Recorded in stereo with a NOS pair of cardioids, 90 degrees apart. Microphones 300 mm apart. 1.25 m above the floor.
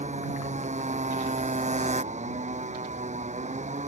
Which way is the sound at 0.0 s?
25° right.